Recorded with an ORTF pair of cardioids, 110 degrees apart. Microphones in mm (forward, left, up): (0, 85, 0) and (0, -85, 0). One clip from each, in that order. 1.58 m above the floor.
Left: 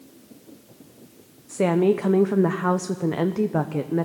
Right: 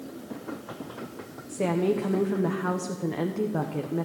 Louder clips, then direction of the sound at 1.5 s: Left 6 dB; 30° left.